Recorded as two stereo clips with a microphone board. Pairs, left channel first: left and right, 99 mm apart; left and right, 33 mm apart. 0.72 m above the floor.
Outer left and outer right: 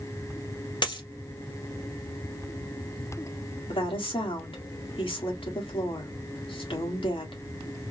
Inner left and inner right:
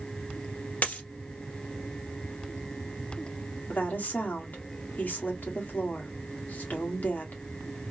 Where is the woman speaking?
60° left (ahead or behind), 1.8 m.